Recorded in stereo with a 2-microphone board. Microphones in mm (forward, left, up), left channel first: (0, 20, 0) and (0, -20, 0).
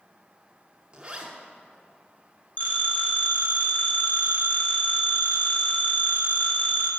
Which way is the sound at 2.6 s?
50° left (ahead or behind).